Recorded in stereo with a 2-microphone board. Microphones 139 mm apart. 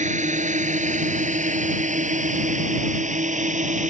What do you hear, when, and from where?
0.0 s a drone: 60° right (ahead or behind)